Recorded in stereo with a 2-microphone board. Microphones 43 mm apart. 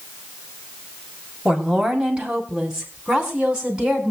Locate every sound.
1.4 s a woman speaking: 15° right (ahead or behind), 4 m; by 4.1 s 20° right (ahead or behind), 5.5 m